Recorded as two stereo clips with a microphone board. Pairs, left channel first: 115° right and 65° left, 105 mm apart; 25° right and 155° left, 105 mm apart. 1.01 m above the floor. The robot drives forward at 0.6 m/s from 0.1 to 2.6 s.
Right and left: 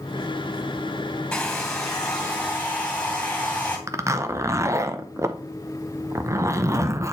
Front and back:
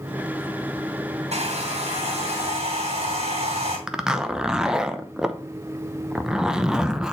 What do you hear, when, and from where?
1.3 s a hair dryer: 165° left, 1.9 m; by 3.8 s 170° left, 2.5 m
3.9 s a zipper: 80° left, 0.7 m